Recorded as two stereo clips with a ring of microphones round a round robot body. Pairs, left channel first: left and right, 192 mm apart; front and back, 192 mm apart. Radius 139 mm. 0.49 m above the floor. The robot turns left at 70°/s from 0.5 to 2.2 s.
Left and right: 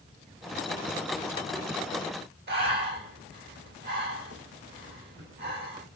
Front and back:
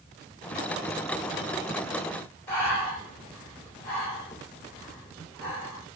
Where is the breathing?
80° right, 2 m.